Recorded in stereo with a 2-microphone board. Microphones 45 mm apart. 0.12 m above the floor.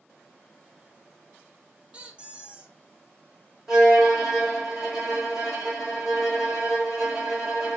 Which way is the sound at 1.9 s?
25° right (ahead or behind).